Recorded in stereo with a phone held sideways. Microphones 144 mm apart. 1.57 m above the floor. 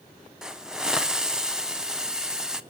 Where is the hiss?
5° right (ahead or behind), 0.5 m.